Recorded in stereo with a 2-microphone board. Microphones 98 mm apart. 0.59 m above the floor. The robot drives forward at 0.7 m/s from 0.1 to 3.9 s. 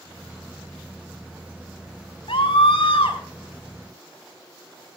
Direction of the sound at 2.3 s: 70° left (ahead or behind).